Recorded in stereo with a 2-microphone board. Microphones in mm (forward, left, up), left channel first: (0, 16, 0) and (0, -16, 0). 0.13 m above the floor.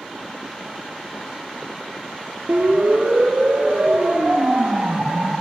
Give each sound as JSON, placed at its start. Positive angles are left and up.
{"t": 2.5, "sound": "a siren", "side_deg": -65, "distance_m": 3.5}